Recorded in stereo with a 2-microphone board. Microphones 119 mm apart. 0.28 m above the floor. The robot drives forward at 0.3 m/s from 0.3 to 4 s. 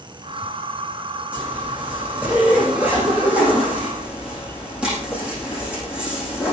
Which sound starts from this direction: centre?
A zipper, at 1.3 s.